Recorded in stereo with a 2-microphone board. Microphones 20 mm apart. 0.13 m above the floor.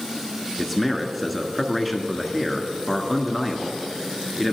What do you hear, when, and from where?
0.6 s a man speaking: centre (ahead or behind), 1.3 m